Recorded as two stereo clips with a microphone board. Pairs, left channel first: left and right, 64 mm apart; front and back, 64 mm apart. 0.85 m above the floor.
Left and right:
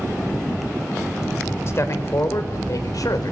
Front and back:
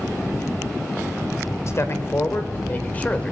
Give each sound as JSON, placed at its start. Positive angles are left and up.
{"t": 1.7, "sound": "a man speaking", "azimuth_deg": 45, "distance_m": 3.5}